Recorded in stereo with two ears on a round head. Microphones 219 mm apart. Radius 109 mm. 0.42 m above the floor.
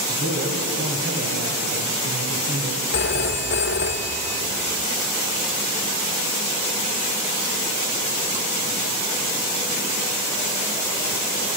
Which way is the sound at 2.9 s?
50° left (ahead or behind).